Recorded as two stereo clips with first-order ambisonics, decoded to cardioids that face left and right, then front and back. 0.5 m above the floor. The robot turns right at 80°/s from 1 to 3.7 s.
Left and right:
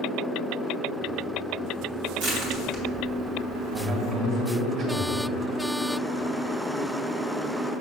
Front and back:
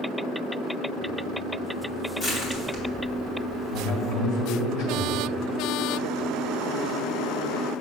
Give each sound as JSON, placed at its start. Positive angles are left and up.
{"t": 2.2, "sound": "crushing", "azimuth_deg": -80, "distance_m": 1.7}
{"t": 3.7, "sound": "a man speaking", "azimuth_deg": -20, "distance_m": 1.7}